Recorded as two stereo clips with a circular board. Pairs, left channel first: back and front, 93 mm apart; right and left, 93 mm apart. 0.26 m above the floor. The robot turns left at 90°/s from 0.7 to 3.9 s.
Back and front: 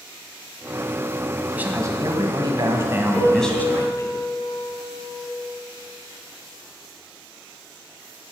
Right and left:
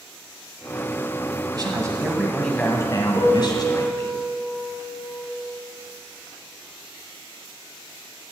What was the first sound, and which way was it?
A man speaking, 75° left.